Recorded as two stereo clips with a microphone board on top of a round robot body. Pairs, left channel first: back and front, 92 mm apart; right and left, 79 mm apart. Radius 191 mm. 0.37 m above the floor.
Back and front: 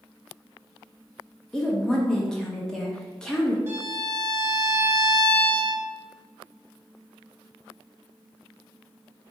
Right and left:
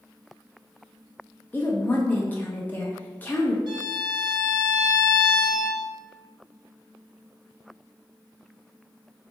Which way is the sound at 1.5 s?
105° right.